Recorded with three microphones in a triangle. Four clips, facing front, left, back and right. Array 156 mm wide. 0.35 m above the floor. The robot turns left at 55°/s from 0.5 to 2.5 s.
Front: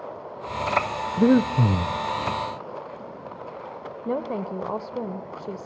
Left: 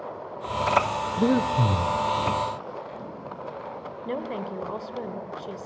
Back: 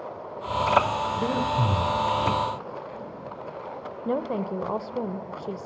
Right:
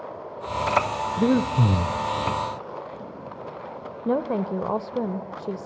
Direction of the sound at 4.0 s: 95° right.